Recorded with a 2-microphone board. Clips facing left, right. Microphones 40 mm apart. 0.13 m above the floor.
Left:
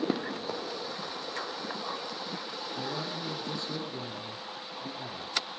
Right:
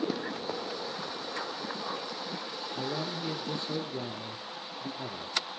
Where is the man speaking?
25° right (ahead or behind), 2.5 m.